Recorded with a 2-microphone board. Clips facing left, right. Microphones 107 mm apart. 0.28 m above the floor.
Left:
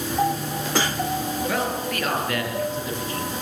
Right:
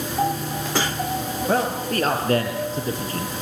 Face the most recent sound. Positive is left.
turn(degrees=-35)  # may be behind; listen again after turning